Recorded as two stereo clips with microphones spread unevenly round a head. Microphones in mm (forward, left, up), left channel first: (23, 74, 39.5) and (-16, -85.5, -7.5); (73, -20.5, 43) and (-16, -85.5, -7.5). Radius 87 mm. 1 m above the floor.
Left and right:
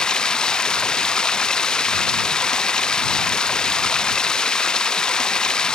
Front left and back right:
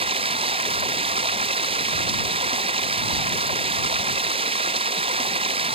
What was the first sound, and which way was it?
Running water, 160° left.